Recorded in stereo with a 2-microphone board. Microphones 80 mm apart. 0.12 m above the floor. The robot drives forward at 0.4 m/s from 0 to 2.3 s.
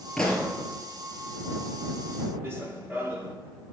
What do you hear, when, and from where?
0.2 s a pop: 5° left (ahead or behind), 3 m
2.4 s running footsteps: 30° right (ahead or behind), 1.6 m